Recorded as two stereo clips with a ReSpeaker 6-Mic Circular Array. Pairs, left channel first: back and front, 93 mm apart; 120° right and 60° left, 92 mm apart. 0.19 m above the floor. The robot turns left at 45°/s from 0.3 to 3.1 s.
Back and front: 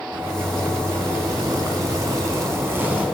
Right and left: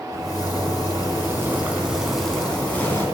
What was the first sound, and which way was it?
A zipper, 55° left.